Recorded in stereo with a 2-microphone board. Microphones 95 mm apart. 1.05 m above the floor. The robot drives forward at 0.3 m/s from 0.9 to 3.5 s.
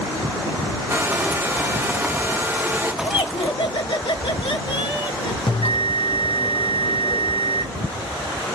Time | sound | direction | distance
0.9 | a hair dryer | 25° right (ahead or behind) | 0.8 m
3.0 | laughter | 60° left (ahead or behind) | 1.0 m
5.5 | a bell | 70° left (ahead or behind) | 0.5 m